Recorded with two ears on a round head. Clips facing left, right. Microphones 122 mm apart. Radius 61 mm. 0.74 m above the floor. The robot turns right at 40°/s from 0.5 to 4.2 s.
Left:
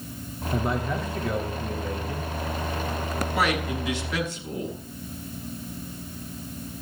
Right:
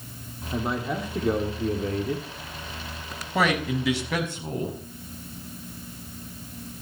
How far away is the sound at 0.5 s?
About 2.5 m.